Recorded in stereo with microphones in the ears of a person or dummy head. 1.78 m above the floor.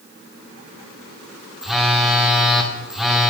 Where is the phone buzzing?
Centre (ahead or behind), 0.6 m.